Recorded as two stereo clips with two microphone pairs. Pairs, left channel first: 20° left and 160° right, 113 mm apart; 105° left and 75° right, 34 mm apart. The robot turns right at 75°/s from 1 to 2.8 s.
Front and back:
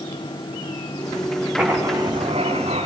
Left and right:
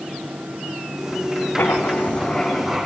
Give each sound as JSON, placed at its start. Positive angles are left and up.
{"t": 1.6, "sound": "writing", "azimuth_deg": 115, "distance_m": 7.5}